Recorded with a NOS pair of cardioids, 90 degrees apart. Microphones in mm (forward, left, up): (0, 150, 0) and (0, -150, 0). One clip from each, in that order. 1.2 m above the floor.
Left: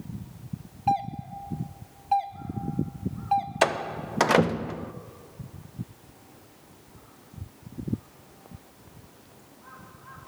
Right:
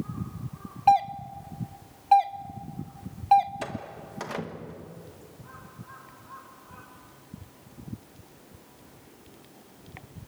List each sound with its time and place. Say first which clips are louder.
0.9 s a doorbell: right 6 dB; 35° right, 1.4 m
3.6 s a door slam: left 12 dB; 70° left, 0.8 m